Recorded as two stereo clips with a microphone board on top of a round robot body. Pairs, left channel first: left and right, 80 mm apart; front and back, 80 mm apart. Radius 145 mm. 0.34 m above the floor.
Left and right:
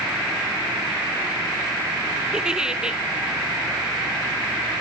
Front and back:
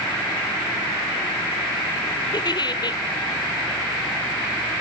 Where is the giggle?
10° right, 1.0 m.